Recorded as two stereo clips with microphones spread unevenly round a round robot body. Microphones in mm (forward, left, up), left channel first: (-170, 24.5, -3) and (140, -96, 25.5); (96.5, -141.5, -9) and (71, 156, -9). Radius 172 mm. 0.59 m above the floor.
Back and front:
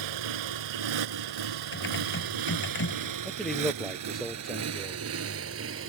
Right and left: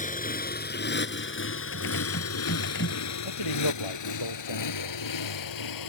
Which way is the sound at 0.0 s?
20° right.